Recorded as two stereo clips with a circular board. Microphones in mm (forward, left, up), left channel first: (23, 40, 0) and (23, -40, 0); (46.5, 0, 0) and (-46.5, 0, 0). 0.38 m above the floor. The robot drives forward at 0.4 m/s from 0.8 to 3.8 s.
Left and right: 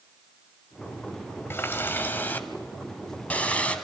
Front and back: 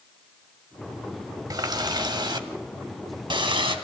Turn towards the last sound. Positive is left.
turn(degrees=160)